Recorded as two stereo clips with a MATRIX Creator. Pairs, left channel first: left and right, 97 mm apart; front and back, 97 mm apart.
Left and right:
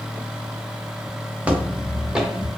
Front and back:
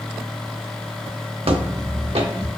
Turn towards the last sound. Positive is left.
turn(degrees=180)